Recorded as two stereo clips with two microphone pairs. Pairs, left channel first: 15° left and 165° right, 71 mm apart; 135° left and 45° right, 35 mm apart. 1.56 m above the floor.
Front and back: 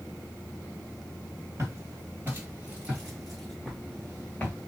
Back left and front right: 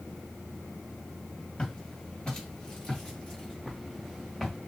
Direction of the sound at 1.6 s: 175° right.